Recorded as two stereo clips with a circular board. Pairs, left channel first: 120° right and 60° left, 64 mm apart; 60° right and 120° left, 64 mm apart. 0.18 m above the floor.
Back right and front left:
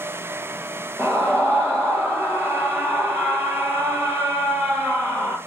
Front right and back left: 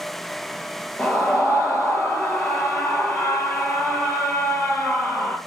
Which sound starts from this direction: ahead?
A scream, at 1.0 s.